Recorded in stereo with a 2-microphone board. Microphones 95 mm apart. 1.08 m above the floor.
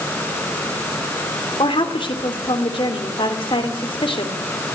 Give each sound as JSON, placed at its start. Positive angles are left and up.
{"t": 1.6, "sound": "a woman speaking", "side_deg": 65, "distance_m": 3.0}